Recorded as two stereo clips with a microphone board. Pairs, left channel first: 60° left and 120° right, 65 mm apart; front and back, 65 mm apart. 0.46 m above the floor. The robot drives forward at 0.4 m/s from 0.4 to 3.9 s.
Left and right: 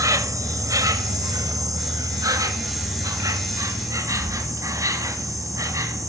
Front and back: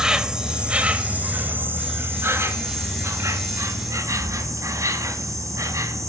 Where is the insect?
105° right, 1.1 m; by 6.1 s 150° right, 2.0 m.